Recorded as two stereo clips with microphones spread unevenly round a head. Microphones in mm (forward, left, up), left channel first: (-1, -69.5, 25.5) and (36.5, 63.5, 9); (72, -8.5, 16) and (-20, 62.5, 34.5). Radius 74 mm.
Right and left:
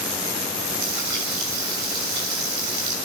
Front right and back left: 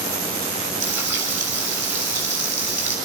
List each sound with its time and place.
0.8 s frying: 75° left, 6 m